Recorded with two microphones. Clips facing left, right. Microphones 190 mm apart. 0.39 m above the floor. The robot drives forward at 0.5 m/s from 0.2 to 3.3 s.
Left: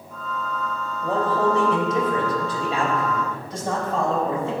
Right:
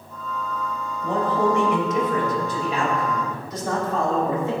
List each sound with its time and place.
1.0 s a man speaking: 40° left (ahead or behind), 3 m; by 4.5 s 30° left (ahead or behind), 3.5 m